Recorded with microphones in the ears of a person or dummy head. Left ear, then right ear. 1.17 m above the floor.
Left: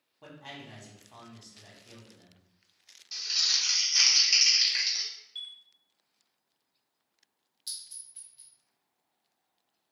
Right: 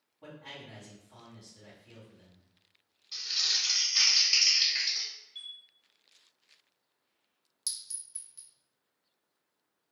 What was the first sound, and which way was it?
A man speaking, 70° left (ahead or behind).